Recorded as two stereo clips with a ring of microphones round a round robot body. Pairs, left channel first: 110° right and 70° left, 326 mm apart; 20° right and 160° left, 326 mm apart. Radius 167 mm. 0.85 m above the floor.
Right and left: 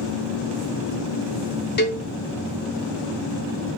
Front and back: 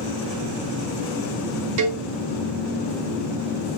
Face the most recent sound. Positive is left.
turn(degrees=-170)